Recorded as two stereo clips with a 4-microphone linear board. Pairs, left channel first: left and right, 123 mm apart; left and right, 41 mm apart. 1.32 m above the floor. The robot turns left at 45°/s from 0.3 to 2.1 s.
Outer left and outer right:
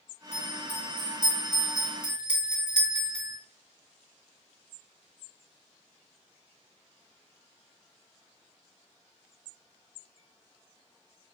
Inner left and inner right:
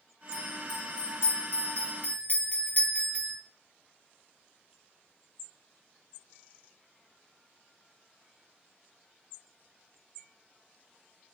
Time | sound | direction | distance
0.3 | a bell | 120° left | 1.9 m